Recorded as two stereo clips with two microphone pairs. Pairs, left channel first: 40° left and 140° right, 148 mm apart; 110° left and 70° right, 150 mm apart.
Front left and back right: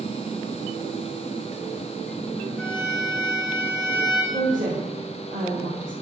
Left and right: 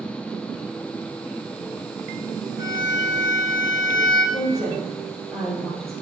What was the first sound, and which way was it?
A violin, 45° right.